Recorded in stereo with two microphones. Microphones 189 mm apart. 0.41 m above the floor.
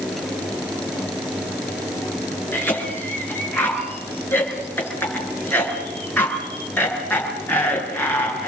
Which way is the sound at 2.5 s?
10° left (ahead or behind).